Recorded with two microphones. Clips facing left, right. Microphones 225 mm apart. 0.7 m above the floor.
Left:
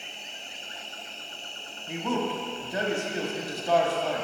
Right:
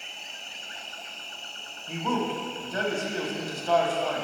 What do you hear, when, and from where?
0.0 s an insect: 65° right (ahead or behind), 1.4 m
1.9 s a man speaking: 15° left (ahead or behind), 1.0 m